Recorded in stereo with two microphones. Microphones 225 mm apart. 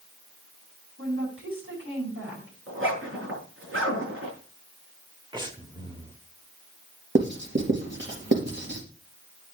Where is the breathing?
20° right (ahead or behind), 1.4 m.